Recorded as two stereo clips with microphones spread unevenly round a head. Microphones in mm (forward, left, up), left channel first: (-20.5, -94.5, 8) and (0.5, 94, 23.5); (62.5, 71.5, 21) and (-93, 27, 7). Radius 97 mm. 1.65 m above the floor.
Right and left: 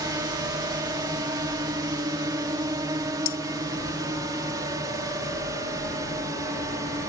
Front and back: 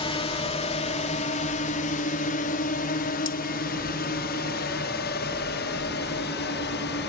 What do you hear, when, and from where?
0.0 s a drone: 25° left; by 7.1 s 10° left
3.2 s cutlery clinking: 50° right